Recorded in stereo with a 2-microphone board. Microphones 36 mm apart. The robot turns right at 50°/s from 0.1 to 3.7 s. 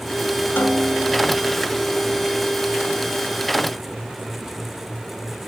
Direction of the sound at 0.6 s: 85° left.